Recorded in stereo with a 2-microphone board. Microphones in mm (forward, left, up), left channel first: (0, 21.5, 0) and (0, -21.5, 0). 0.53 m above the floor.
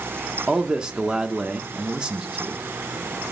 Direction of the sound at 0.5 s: 20° right (ahead or behind).